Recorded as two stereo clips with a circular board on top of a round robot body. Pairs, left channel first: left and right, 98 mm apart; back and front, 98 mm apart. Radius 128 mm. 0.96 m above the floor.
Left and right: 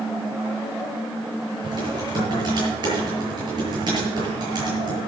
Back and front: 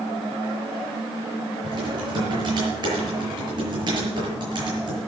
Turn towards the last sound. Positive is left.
turn(degrees=-45)